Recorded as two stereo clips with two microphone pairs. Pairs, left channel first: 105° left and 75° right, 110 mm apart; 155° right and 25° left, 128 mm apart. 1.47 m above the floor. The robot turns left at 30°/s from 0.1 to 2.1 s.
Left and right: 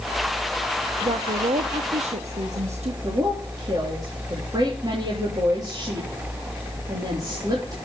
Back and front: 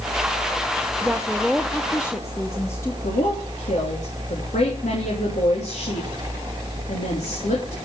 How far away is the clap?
No clap in this recording.